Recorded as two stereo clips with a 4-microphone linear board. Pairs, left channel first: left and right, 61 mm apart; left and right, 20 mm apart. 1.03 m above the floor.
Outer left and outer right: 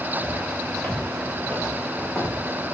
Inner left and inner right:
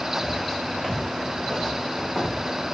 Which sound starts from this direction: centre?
Footsteps, at 0.2 s.